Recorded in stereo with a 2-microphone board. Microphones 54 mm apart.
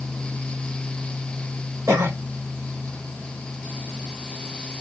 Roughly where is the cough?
Right.